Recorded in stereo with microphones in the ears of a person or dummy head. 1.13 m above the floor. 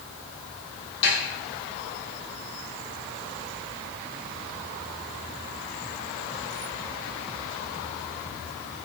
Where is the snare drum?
75° left (ahead or behind), 6.5 m.